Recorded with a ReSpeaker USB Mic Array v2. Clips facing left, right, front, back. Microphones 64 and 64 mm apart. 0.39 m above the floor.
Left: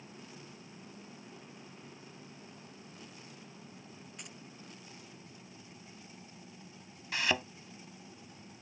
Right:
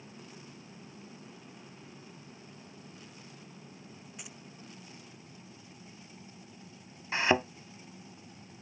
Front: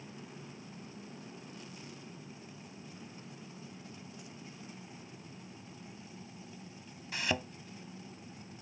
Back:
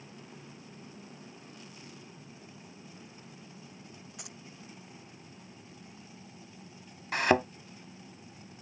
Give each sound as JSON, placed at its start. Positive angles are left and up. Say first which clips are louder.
{"t": 4.2, "sound": "keys jangling", "louder": "right 1 dB, back 1 dB", "azimuth_deg": -175}
{"t": 7.1, "sound": "a thud", "louder": "right 6 dB, back 10 dB", "azimuth_deg": -150}